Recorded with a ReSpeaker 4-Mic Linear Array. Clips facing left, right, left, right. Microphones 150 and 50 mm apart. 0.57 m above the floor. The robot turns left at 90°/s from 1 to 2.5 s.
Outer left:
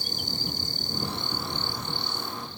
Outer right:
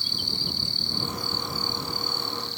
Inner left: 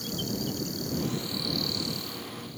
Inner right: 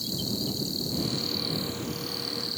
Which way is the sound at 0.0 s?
45° left.